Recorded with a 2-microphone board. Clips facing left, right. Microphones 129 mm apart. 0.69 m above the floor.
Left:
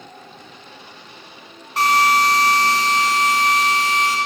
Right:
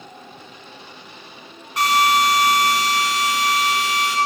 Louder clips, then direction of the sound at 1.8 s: Left 1 dB; 30° left (ahead or behind).